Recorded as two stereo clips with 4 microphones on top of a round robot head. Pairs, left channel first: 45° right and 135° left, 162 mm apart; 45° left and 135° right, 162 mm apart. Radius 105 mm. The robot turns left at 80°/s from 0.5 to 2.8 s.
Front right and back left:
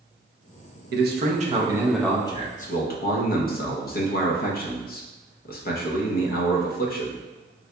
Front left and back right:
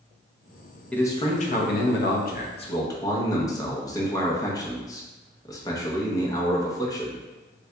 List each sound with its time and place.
0.9 s a man speaking: 130° left, 0.7 m; by 7.2 s 20° right, 0.7 m